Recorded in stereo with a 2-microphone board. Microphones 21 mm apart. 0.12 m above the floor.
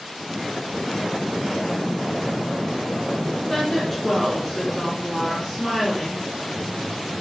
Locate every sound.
3.5 s a woman speaking: 20° left (ahead or behind), 1.4 m